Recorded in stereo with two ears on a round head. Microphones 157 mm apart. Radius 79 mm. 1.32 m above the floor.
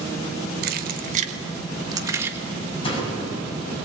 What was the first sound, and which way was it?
Keys jangling, 55° right (ahead or behind).